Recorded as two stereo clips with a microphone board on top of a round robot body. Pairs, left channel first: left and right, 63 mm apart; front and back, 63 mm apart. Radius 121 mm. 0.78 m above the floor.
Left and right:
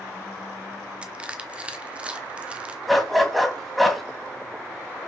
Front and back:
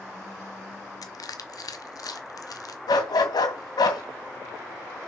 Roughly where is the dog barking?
Ahead.